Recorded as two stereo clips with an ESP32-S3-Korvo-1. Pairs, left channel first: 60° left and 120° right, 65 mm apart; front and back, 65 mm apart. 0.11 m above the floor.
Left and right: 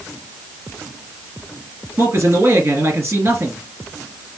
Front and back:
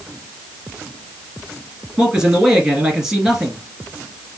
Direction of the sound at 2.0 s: 105° right.